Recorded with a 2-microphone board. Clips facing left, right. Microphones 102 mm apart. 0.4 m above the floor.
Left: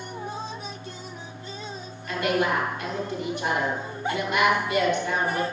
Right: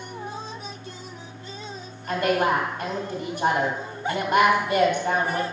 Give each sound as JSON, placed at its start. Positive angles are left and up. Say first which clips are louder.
{"t": 2.1, "sound": "a woman speaking", "louder": "right 2 dB", "side_deg": -40, "distance_m": 2.5}